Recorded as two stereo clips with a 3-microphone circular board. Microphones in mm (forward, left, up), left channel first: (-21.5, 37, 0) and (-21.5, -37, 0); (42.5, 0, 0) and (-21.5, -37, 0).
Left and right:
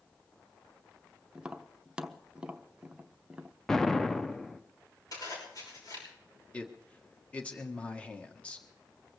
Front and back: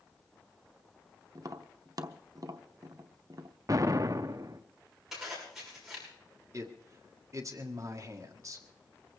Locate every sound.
1.4 s tapping: 165° right, 0.7 m
3.7 s an explosion: 175° left, 0.6 m
5.1 s a zipper: 125° left, 6 m
6.5 s a man speaking: 165° left, 1.5 m